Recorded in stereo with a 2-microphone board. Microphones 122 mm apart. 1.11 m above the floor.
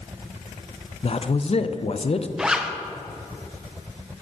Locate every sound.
1.0 s a man speaking: 50° left (ahead or behind), 0.5 m
2.4 s a zipper: 5° right (ahead or behind), 0.7 m